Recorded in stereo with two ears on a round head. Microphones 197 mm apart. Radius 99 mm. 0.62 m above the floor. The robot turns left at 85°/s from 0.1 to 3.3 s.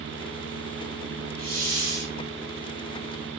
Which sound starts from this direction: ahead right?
A hiss, at 1.4 s.